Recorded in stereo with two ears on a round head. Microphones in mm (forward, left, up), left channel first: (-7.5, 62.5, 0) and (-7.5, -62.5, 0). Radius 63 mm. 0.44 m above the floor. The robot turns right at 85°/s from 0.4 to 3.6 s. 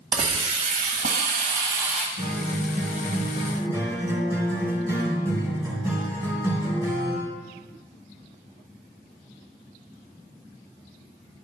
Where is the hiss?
140° right, 1.2 m; by 2.1 s straight ahead, 1.2 m.